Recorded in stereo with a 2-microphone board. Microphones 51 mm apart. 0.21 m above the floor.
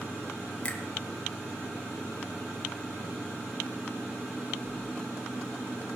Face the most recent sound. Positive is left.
turn(degrees=20)  # may be behind; listen again after turning